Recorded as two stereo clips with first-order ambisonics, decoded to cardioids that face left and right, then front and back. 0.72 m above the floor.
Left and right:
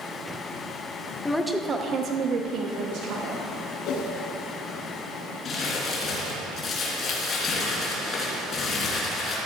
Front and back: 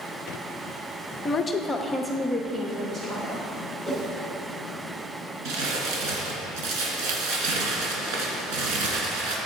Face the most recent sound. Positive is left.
turn(degrees=155)